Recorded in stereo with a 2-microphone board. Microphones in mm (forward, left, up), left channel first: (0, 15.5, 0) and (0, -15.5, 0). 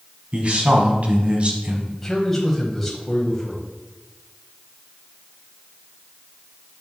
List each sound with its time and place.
0.3 s a man speaking: 45° right (ahead or behind), 1.6 m; by 1.8 s 35° right (ahead or behind), 1.5 m
1.9 s a man speaking: 5° left (ahead or behind), 1.3 m